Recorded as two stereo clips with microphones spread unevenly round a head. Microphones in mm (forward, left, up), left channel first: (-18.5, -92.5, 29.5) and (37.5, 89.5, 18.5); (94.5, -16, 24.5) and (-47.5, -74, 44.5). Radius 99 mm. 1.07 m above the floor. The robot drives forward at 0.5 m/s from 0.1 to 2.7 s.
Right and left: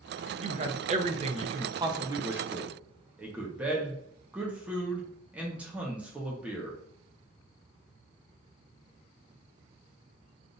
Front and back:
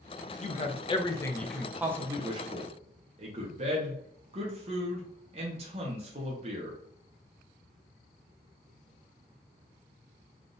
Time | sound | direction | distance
0.4 | a man speaking | 30° left | 0.8 m